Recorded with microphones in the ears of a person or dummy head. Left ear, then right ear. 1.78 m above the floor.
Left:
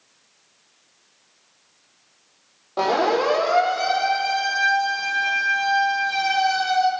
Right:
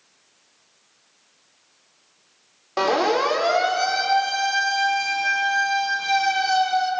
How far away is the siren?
About 6 m.